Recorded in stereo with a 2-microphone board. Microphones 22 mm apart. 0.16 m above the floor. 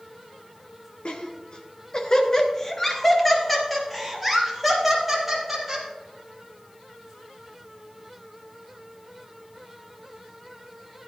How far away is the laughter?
About 2.0 m.